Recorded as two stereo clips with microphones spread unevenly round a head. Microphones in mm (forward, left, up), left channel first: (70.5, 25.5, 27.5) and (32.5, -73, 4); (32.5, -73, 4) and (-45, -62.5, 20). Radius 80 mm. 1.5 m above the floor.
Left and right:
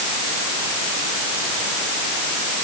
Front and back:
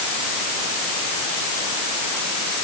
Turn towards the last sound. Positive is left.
No sound to turn to.